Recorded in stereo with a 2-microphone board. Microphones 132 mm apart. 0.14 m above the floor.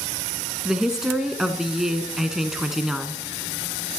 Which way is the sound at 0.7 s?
5° right (ahead or behind).